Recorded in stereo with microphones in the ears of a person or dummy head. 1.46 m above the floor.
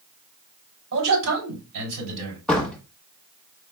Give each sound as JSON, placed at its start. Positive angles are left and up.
{"t": 0.9, "sound": "a man speaking", "side_deg": -75, "distance_m": 4.0}
{"t": 2.5, "sound": "a door slam", "side_deg": 5, "distance_m": 1.4}